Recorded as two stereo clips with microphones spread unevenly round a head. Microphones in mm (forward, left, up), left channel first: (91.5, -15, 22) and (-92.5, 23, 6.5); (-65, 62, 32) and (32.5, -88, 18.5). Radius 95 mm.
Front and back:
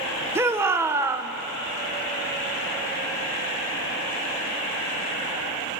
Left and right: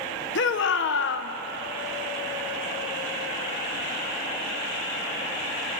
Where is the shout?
90° left, 1.1 m.